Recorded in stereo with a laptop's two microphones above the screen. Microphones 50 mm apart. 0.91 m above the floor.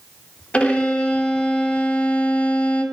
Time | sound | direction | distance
0.5 | a violin | 20° left (ahead or behind) | 1.5 m